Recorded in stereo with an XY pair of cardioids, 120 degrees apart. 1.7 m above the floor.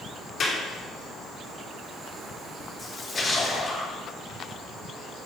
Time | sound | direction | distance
0.4 | a clap | 40° left | 3.5 m
2.8 | a splash | 20° left | 4.5 m